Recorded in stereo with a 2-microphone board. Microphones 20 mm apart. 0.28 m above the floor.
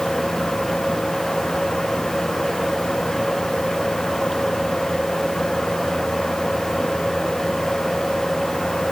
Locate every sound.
Only background noise.